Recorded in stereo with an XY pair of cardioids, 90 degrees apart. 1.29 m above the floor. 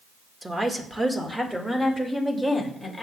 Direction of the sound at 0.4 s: 20° right.